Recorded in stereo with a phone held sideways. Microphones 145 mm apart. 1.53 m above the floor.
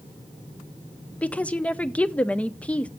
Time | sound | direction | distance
1.2 | a woman speaking | 10° left (ahead or behind) | 0.6 m